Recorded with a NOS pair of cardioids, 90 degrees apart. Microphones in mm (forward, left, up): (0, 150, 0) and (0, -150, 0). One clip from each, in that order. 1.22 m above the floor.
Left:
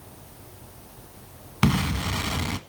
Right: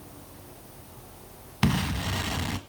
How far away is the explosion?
About 1.4 m.